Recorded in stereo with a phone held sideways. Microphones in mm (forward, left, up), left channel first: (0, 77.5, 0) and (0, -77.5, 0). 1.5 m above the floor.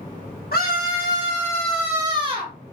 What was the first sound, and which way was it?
A scream, 80° left.